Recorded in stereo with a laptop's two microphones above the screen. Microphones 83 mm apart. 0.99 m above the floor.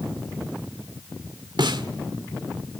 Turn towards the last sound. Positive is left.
turn(degrees=-70)  # may be behind; listen again after turning